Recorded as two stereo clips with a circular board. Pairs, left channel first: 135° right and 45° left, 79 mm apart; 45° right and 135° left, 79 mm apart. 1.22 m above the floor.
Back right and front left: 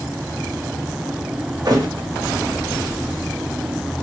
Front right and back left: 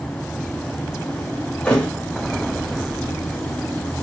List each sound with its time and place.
1.6 s a thud: 25° left, 0.9 m